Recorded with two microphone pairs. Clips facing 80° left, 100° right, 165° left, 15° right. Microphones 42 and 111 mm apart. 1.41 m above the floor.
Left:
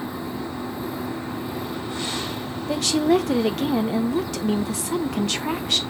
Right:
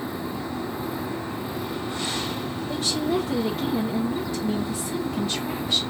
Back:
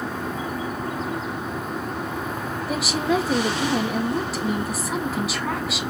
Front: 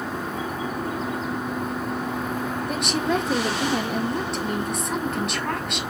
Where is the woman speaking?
80° left, 0.8 m.